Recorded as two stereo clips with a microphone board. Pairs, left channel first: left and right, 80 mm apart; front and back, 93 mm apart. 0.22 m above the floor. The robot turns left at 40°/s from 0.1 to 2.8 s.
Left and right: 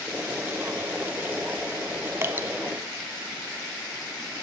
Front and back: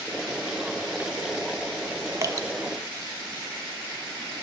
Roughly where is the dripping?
Behind right.